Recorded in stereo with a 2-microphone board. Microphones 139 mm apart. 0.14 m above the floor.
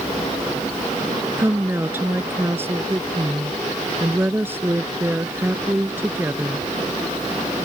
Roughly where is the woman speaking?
Centre.